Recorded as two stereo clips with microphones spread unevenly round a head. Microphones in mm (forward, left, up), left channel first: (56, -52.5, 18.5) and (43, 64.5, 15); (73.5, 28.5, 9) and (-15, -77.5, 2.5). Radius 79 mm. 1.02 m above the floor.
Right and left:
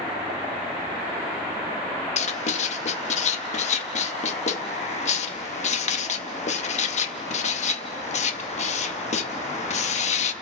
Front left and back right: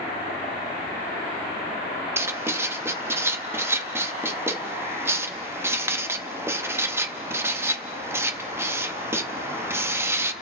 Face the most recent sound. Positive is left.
turn(degrees=-60)